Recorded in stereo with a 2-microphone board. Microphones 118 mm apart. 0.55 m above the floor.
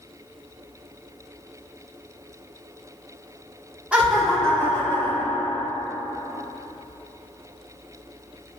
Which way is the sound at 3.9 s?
10° right (ahead or behind).